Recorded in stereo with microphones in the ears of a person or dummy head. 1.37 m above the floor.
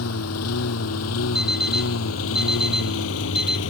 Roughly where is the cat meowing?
I don't hear a cat meowing.